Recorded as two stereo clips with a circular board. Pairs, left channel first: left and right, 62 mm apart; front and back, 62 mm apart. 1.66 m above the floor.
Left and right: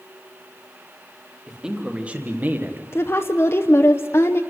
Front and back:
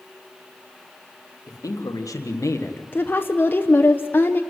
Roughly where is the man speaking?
Ahead.